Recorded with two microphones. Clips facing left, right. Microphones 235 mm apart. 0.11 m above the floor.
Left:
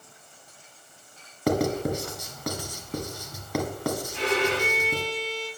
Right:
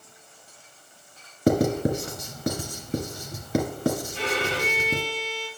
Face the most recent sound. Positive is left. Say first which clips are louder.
# left 3 dB
turn(degrees=75)  # may be behind; listen again after turning